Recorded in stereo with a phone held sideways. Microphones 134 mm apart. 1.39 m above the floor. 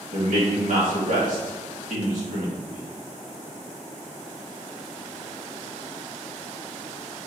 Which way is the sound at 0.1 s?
80° right.